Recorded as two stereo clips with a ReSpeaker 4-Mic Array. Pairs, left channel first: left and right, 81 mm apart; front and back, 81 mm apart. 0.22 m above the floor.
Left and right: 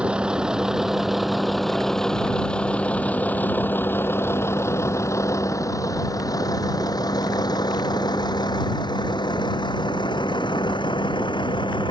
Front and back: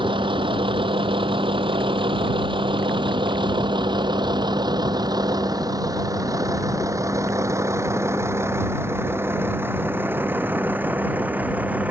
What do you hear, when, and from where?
0.0 s a vehicle: 165° right; by 11.9 s 110° left